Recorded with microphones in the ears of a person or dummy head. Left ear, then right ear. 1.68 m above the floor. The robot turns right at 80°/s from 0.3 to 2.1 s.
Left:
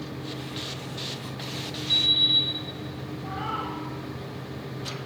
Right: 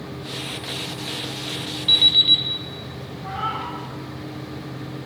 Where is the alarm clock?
55° right (ahead or behind), 2 m; by 2.5 s 40° right (ahead or behind), 2 m.